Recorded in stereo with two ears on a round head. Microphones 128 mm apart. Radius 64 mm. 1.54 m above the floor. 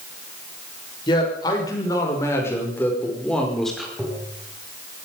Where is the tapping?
5° right (ahead or behind), 5.5 m.